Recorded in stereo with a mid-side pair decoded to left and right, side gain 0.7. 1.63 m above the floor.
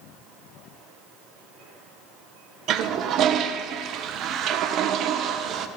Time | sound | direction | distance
2.7 | a toilet flushing | 50° right | 1.6 m